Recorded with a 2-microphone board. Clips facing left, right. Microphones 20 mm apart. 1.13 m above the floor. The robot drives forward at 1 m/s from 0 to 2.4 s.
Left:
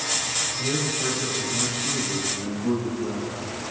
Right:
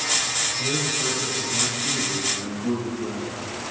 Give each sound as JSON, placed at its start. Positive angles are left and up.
{"t": 0.6, "sound": "a man speaking", "side_deg": 0, "distance_m": 5.0}